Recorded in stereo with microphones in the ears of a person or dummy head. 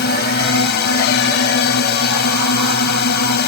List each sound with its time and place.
0.0 s a drone: 55° left (ahead or behind)